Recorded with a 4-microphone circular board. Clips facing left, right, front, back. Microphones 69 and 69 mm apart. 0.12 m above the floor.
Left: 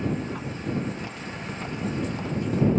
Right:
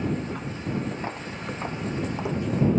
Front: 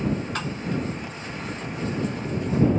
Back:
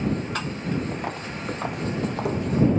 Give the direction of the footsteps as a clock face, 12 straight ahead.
5 o'clock.